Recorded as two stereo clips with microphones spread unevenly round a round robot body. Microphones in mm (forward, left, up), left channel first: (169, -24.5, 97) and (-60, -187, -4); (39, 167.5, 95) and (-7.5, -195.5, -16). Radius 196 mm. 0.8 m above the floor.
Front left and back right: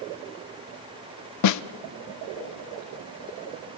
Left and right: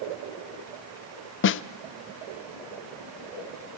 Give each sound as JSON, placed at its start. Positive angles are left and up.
{"t": 1.4, "sound": "a snare drum", "azimuth_deg": 30, "distance_m": 0.7}